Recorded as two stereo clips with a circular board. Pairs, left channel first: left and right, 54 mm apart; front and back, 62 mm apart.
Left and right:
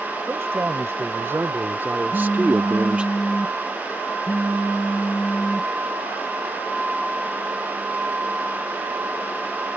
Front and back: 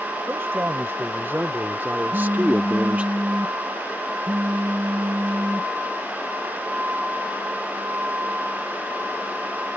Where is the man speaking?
130° right; by 3.1 s 140° right.